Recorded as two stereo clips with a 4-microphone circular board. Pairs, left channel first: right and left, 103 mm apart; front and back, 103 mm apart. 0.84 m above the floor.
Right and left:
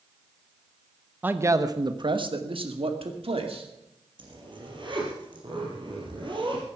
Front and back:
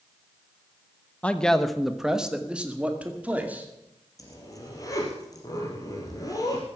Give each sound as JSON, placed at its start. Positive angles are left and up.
{"t": 1.2, "sound": "a man speaking", "azimuth_deg": 50, "distance_m": 0.9}
{"t": 4.2, "sound": "a zipper", "azimuth_deg": 55, "distance_m": 4.0}